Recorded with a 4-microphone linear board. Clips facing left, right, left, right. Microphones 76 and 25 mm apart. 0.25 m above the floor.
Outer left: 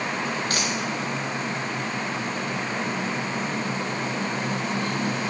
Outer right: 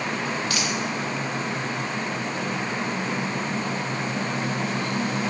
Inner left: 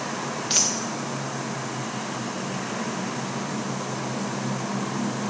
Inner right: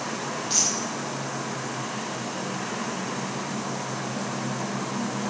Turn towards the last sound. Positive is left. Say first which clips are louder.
# even, inner left 2 dB
turn(degrees=40)  # may be behind; listen again after turning